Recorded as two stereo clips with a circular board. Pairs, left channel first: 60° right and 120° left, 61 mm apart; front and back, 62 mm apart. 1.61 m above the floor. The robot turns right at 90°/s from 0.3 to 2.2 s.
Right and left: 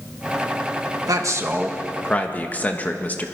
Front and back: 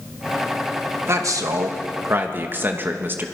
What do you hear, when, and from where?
1.1 s a man speaking: 135° left, 1.9 m; by 3.3 s 125° right, 1.9 m